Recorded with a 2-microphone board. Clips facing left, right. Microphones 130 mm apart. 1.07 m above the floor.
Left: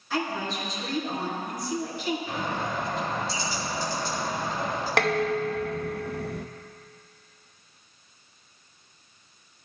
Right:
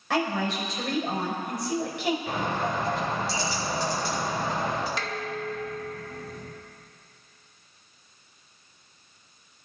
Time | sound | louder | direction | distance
0.1 | a woman speaking | right 3 dB | 85° right | 4.5 m
2.3 | a bird | right 2 dB | 85° right | 5.5 m
5.0 | dishes clattering | left 8 dB | 70° left (ahead or behind) | 0.6 m